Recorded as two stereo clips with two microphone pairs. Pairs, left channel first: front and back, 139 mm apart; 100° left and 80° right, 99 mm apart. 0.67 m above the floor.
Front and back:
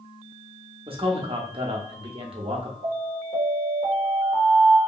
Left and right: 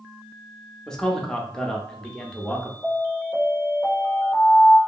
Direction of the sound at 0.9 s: Straight behind.